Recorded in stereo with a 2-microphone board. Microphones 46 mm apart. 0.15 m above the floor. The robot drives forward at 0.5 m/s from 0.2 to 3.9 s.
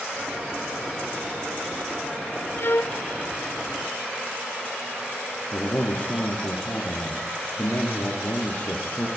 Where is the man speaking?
50° left (ahead or behind), 3.5 m.